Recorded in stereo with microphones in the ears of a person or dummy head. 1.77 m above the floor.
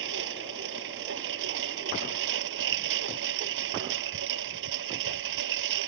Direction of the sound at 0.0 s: 70° right (ahead or behind).